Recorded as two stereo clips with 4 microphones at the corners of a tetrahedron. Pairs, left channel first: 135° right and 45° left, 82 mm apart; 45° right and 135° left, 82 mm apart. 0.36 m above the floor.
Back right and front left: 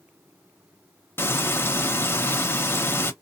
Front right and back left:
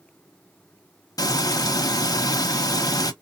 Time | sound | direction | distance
1.2 | frying | 75° right | 0.6 m